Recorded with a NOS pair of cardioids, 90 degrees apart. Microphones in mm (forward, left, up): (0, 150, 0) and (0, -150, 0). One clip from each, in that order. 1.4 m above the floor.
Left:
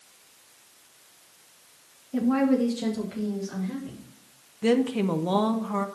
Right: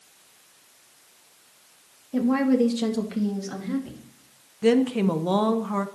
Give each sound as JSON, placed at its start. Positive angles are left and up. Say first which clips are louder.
{"t": 2.1, "sound": "a woman speaking", "louder": "right 2 dB", "azimuth_deg": -15, "distance_m": 1.7}
{"t": 4.6, "sound": "a woman speaking", "louder": "right 3 dB", "azimuth_deg": -10, "distance_m": 0.8}